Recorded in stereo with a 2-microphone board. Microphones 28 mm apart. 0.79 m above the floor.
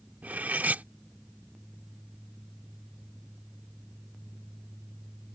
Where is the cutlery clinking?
75° right (ahead or behind).